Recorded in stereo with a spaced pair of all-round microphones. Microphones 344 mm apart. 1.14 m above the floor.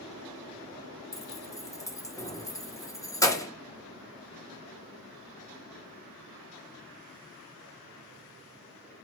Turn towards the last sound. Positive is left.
turn(degrees=10)  # may be behind; listen again after turning